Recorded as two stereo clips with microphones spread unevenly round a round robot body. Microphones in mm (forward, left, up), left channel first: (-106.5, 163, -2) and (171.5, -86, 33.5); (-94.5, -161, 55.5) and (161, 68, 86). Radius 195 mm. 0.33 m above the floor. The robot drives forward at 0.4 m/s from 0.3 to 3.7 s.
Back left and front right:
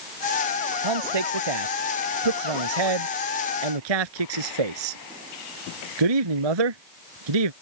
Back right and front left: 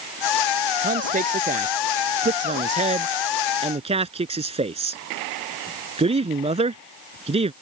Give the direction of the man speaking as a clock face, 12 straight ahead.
1 o'clock.